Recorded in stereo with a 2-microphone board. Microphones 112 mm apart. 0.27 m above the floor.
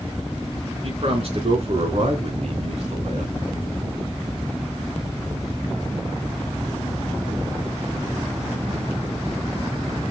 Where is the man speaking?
55° right (ahead or behind), 3 m; by 3.3 s 65° right (ahead or behind), 2.5 m.